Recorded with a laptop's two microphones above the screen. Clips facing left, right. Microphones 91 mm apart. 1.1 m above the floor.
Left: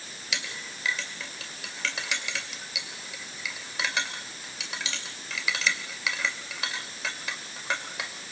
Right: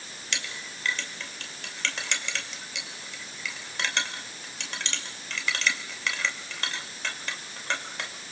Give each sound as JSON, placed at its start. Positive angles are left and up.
{"t": 0.3, "sound": "a clink", "side_deg": 5, "distance_m": 2.5}